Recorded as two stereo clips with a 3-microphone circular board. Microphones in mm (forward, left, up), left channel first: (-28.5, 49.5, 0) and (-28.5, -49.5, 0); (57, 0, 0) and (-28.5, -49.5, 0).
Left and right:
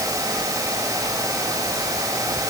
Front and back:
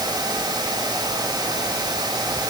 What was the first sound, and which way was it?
Only background noise.